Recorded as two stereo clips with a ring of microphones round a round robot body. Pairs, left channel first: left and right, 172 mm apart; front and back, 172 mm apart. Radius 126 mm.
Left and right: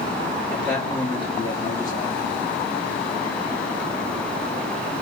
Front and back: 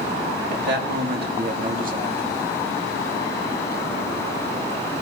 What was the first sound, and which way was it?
A man speaking, 175° left.